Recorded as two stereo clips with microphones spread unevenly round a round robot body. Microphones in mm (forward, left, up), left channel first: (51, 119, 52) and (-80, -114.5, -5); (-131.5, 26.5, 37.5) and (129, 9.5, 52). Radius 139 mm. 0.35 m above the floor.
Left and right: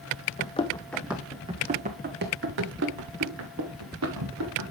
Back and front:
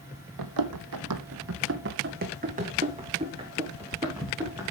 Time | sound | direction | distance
0.4 | running footsteps | straight ahead | 0.9 m